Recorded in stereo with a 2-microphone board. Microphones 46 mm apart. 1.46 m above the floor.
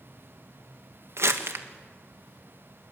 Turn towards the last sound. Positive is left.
turn(degrees=-70)  # may be behind; listen again after turning